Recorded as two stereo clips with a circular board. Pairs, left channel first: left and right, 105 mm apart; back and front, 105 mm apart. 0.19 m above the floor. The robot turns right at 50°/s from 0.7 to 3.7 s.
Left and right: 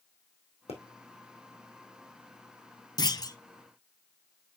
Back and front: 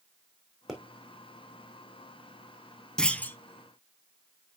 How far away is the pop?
About 3 m.